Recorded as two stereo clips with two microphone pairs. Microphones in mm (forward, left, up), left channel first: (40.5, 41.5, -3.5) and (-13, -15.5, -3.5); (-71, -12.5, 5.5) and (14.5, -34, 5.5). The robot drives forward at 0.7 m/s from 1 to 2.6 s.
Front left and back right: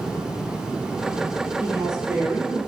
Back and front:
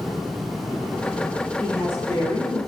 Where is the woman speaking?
145° left, 1.3 m; by 2.6 s 165° left, 1.7 m.